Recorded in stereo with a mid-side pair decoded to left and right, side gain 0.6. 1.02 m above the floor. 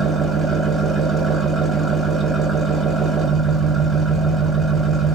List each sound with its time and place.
0.0 s an engine running: 25° right, 0.9 m